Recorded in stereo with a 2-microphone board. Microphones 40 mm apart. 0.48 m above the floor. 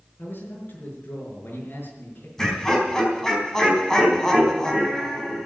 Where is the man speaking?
60° left (ahead or behind), 6 m.